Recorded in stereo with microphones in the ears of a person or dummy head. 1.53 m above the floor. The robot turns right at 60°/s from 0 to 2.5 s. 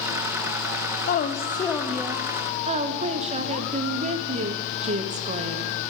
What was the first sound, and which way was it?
A woman speaking, 130° left.